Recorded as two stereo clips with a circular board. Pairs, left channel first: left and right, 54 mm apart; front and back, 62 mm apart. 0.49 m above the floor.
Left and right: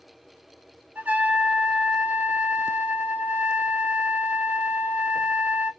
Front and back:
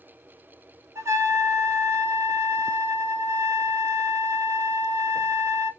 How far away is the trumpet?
About 0.8 m.